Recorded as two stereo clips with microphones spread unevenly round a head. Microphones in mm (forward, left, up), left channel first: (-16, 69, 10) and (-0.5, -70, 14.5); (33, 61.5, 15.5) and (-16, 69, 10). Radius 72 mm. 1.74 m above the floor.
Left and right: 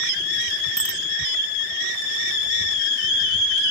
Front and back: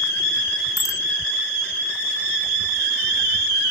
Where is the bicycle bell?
Straight ahead.